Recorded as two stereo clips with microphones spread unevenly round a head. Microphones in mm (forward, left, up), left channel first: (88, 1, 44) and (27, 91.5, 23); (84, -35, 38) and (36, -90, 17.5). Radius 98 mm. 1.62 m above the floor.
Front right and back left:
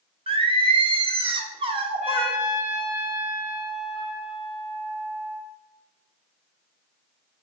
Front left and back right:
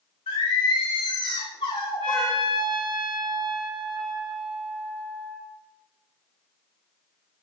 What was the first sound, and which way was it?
Singing, 85° left.